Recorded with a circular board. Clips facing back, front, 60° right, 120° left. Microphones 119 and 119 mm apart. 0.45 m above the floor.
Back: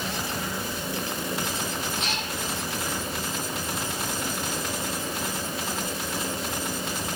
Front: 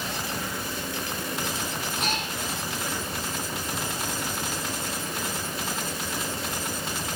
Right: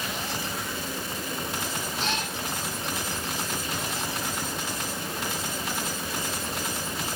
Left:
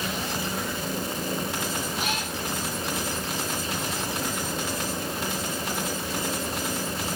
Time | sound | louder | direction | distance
2.0 | a cat meowing | front 2 dB, even | 40° left | 8.5 m